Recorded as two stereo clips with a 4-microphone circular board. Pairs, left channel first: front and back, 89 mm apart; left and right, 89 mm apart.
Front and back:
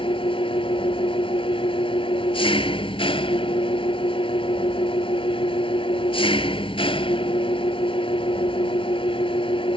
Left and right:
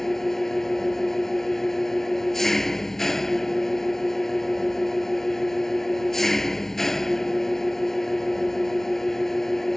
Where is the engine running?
5° left.